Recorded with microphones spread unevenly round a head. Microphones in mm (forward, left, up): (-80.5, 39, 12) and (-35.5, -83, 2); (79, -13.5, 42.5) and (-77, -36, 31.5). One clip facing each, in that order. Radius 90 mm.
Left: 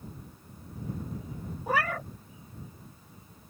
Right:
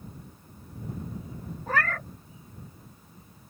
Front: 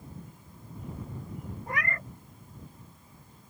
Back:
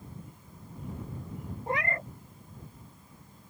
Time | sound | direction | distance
1.7 | a cat meowing | 150° left | ?